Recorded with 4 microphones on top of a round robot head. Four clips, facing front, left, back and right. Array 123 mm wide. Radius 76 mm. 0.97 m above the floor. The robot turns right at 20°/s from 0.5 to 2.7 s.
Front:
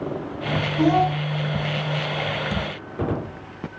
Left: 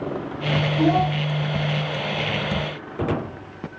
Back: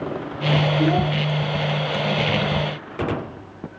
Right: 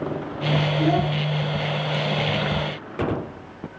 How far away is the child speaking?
About 5.5 m.